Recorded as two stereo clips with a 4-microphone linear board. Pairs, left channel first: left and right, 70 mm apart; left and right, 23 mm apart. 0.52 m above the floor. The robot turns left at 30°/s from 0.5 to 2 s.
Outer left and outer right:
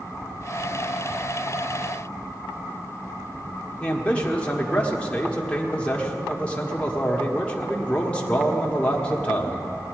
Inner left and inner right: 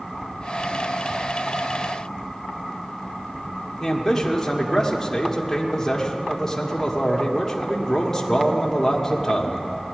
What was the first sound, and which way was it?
A man speaking, 20° left (ahead or behind).